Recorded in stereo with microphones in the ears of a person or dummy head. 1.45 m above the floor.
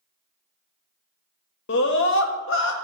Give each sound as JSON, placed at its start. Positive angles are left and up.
{"t": 1.7, "sound": "a scream", "side_deg": 75, "distance_m": 1.0}